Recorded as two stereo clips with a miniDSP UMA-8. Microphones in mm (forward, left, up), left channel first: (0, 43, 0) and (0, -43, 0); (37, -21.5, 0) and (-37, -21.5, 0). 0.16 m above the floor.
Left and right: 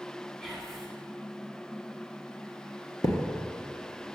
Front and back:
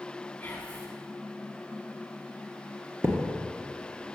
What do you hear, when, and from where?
0.4 s whispering: 10° left, 1.1 m
3.0 s a thud: 130° left, 1.1 m